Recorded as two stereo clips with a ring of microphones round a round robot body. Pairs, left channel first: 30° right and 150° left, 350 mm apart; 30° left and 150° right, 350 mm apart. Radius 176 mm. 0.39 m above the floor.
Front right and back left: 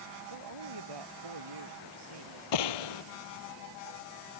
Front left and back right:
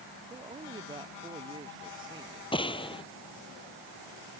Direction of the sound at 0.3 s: 130° left.